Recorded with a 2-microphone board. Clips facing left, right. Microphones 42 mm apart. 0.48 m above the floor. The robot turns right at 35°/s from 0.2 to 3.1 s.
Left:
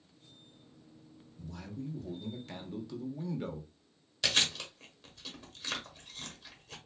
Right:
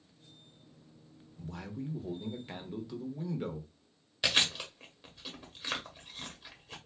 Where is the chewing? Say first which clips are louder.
Right 1 dB; 15° right (ahead or behind), 1.1 m.